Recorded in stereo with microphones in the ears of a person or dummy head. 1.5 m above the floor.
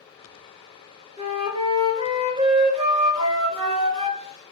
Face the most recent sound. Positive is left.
turn(degrees=-30)  # may be behind; listen again after turning